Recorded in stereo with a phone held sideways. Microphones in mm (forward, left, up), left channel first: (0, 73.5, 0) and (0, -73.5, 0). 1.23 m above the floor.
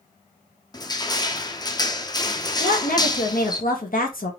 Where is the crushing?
25° left (ahead or behind), 0.6 m.